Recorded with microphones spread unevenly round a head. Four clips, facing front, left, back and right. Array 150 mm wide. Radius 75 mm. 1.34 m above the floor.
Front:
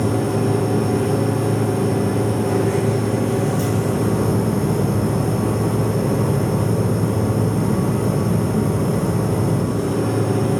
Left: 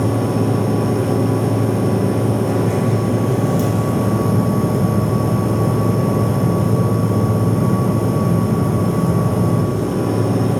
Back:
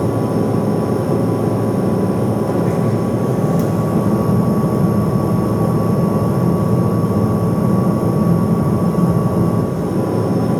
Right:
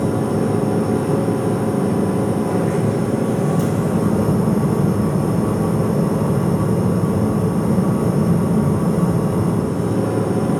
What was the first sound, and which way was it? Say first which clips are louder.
A machine running: left 1 dB, back 2 dB; 165° left.